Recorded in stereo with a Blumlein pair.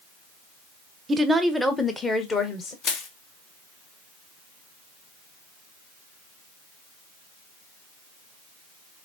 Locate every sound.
1.1 s a woman speaking: 20° right, 0.7 m; by 2.7 s 25° left, 1.3 m
2.8 s crushing: 35° left, 0.8 m